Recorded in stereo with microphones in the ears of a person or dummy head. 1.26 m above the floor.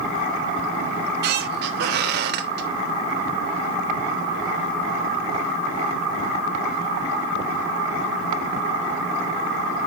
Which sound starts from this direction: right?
A squeak, at 0.9 s.